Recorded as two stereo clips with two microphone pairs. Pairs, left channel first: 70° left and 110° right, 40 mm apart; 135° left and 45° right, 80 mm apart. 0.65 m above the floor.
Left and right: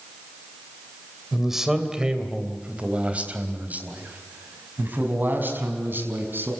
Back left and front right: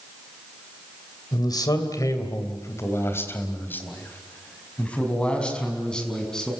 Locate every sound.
1.3 s a man speaking: 170° left, 2.5 m; by 6.5 s 140° right, 6 m